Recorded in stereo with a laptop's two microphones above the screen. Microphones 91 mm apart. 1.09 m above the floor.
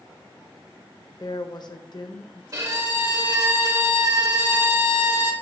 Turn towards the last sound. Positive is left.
turn(degrees=-40)  # may be behind; listen again after turning